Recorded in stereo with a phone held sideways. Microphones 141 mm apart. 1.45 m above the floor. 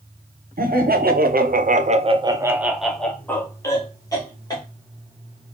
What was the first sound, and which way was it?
Laughter, 80° right.